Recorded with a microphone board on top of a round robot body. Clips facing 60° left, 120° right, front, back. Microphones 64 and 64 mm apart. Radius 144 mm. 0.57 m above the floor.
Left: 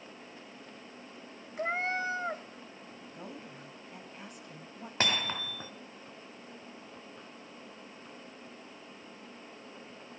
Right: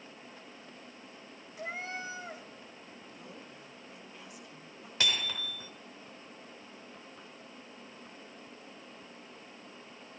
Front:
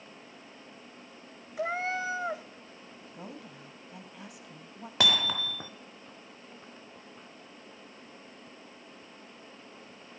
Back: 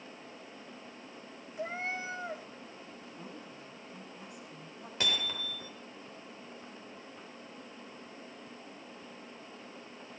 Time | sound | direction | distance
1.6 | a cat meowing | 10° left | 0.5 m
3.1 | a woman speaking | 10° left | 4.5 m
5.0 | hammering | straight ahead | 1.5 m